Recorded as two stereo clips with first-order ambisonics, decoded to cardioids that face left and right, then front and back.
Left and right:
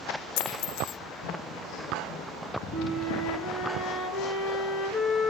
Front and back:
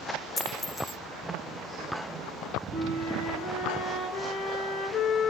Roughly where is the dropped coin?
Left.